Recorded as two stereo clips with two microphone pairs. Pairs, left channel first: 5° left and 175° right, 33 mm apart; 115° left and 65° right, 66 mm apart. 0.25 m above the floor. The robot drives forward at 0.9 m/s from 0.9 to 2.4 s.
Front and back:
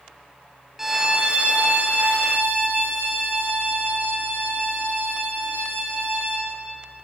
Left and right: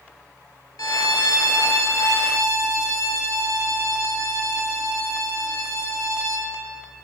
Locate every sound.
0.8 s a violin: 105° left, 0.6 m; by 6.5 s 160° left, 1.6 m